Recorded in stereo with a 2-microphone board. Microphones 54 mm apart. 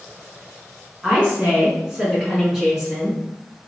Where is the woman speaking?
20° right (ahead or behind), 1.4 m; by 3.2 s 10° right (ahead or behind), 1.7 m.